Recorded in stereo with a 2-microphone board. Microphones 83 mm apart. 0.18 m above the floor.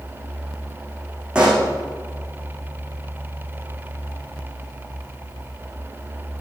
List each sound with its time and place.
1.4 s a pop: 10° right (ahead or behind), 4.5 m